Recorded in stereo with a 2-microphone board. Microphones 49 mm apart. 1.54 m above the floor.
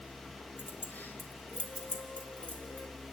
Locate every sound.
0.6 s keys jangling: 45° left (ahead or behind), 1.4 m; by 2.9 s 25° left (ahead or behind), 2.5 m